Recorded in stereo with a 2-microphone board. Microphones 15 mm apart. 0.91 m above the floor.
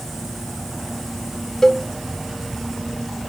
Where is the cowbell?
30° left (ahead or behind), 0.8 m.